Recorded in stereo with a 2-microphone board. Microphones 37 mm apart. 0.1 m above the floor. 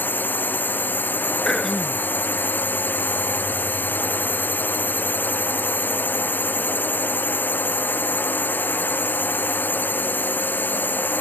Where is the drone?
60° left (ahead or behind).